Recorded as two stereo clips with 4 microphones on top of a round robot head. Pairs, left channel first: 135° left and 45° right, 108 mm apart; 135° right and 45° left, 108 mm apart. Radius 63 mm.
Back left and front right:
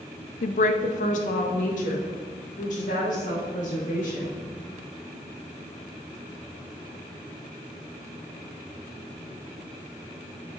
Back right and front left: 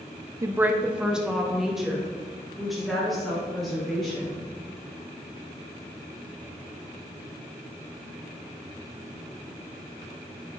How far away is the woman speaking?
About 0.5 m.